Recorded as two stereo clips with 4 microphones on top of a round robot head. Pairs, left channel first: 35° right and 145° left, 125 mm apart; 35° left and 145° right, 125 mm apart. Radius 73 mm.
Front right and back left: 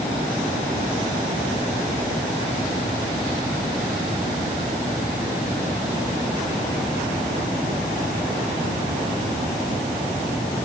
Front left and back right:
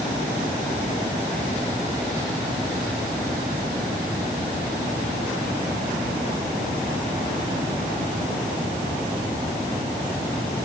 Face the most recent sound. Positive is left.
No sound to turn to.